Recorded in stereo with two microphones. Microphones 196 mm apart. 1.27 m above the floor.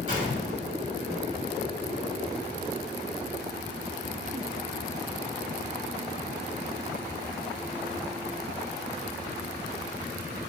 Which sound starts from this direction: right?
A gunshot, at 0.1 s.